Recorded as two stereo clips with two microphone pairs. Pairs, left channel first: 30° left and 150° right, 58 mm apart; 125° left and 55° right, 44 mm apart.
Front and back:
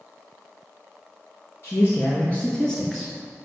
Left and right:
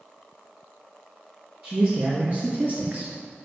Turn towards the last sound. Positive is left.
turn(degrees=-75)